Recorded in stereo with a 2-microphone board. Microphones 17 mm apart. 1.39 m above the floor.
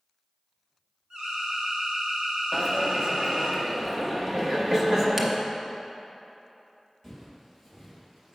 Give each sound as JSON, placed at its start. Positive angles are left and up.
{"t": 1.1, "sound": "an alarm", "side_deg": -65, "distance_m": 2.5}
{"t": 2.5, "sound": "a dropped coin", "side_deg": -25, "distance_m": 0.7}
{"t": 4.3, "sound": "laughter", "side_deg": -70, "distance_m": 1.5}
{"t": 7.0, "sound": "footsteps", "side_deg": -20, "distance_m": 1.8}